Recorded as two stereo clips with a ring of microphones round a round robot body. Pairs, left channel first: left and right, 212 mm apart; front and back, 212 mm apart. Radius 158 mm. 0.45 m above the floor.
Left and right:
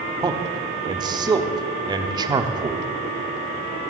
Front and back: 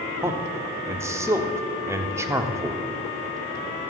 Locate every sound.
0.2 s a man speaking: 125° right, 0.9 m